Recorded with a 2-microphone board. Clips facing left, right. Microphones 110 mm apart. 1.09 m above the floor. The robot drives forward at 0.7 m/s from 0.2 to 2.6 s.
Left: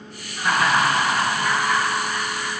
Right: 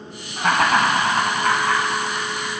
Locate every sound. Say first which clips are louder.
0.4 s laughter: right 2 dB; 65° right (ahead or behind), 1.6 m; by 2.5 s 40° right (ahead or behind), 2.5 m